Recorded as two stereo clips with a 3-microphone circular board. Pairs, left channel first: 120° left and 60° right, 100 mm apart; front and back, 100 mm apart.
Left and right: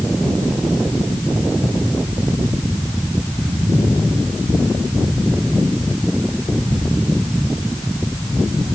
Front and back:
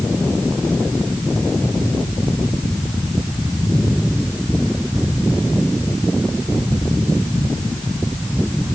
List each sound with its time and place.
Only background noise.